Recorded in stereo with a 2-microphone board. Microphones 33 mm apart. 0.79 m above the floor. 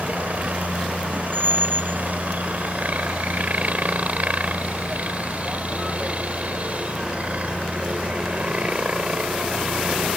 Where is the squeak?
90° right.